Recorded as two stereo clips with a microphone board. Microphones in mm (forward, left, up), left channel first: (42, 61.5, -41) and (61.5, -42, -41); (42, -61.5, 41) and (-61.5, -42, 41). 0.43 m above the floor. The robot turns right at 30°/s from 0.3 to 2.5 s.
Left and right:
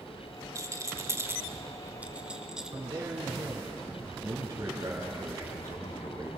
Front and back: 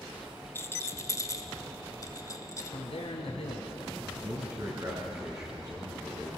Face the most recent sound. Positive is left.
turn(degrees=-140)